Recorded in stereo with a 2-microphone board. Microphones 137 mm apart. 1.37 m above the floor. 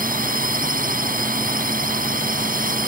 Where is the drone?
70° right (ahead or behind).